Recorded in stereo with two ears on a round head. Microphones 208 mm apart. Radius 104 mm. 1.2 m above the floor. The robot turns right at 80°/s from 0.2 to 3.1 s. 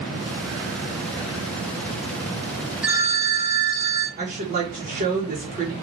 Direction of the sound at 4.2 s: 40° right (ahead or behind).